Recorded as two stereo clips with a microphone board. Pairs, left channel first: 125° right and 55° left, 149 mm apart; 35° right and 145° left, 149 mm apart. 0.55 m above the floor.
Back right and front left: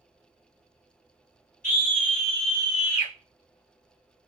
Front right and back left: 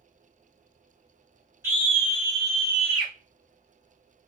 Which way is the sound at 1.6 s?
145° right.